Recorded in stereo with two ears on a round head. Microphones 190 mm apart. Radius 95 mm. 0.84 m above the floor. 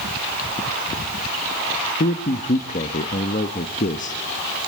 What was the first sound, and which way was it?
A man speaking, 40° left (ahead or behind).